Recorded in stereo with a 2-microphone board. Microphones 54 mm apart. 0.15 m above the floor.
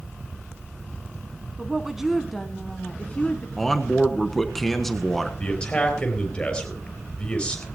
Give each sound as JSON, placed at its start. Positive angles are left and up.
{"t": 1.6, "sound": "a woman speaking", "side_deg": -20, "distance_m": 1.1}
{"t": 3.6, "sound": "a man speaking", "side_deg": 5, "distance_m": 1.2}
{"t": 5.4, "sound": "a man speaking", "side_deg": 20, "distance_m": 3.5}